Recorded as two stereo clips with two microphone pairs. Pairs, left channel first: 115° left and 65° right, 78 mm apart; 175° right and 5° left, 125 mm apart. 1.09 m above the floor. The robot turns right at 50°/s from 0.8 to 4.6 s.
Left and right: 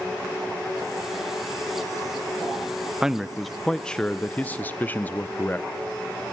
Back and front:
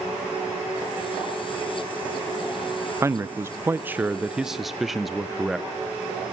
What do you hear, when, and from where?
3.0 s a man speaking: straight ahead, 0.5 m; by 5.7 s 80° left, 0.5 m